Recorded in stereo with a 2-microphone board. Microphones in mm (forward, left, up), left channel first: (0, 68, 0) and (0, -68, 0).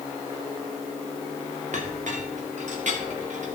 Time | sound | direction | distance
1.7 | a clink | 65° right (ahead or behind) | 1.9 m